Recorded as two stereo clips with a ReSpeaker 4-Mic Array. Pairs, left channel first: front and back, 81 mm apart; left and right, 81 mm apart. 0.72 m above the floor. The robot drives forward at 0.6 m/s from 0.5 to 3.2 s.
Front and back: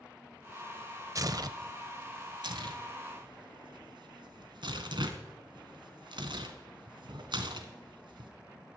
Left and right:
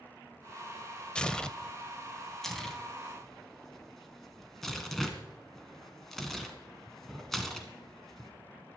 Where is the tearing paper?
165° left, 0.6 m; by 8.3 s 175° left, 1.7 m.